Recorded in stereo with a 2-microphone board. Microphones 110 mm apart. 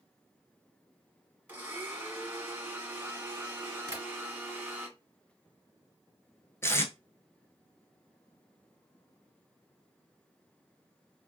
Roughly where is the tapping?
Right.